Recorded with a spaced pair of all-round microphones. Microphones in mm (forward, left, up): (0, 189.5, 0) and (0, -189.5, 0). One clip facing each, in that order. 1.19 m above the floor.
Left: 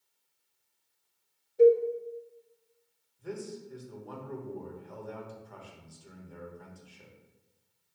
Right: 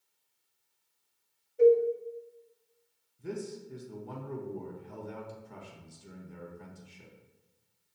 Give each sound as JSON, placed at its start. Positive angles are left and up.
{"t": 1.6, "sound": "a cowbell", "side_deg": 50, "distance_m": 0.7}
{"t": 3.2, "sound": "a man speaking", "side_deg": -35, "distance_m": 0.9}